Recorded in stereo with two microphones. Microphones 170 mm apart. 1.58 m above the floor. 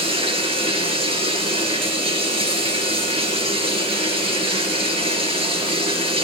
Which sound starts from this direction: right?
Running water, at 0.0 s.